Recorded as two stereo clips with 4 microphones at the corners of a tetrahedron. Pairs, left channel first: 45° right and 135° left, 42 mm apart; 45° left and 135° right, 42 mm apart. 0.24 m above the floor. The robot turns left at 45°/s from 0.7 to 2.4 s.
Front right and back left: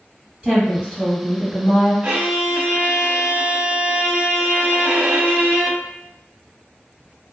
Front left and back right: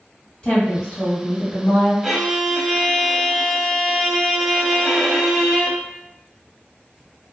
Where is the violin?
150° left, 0.5 m; by 5.8 s 135° left, 0.5 m.